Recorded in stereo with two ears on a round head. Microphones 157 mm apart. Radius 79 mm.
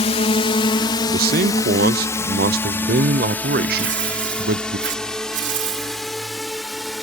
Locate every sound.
0.0 s a drone: 35° left (ahead or behind); by 7.0 s centre (ahead or behind)
1.1 s a man speaking: 55° right (ahead or behind)
3.8 s tearing paper: 75° right (ahead or behind)